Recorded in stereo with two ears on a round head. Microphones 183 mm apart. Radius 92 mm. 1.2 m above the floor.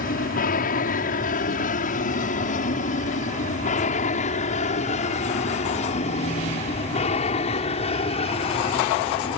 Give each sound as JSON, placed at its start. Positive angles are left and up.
{"t": 0.0, "sound": "an aircraft", "side_deg": 45}